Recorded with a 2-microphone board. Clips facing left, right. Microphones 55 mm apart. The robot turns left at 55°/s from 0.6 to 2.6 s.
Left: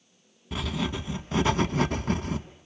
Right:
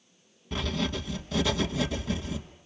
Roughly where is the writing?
Behind.